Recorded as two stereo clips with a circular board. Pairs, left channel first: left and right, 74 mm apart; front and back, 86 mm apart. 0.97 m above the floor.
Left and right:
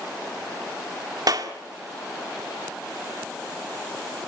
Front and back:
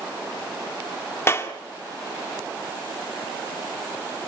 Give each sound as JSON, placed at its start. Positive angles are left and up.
{"t": 1.3, "sound": "a clap", "azimuth_deg": -60, "distance_m": 2.0}